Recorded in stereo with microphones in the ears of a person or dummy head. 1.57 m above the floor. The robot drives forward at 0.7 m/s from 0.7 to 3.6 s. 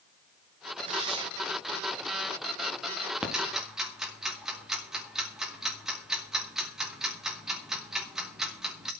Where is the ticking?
5° right (ahead or behind), 1.9 m.